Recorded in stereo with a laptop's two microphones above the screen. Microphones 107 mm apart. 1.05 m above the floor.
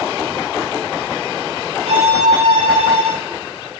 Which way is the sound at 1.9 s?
70° right (ahead or behind).